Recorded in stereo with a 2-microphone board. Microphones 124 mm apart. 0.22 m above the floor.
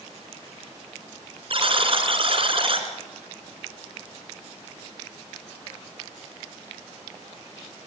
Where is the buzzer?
45° right (ahead or behind), 3 m.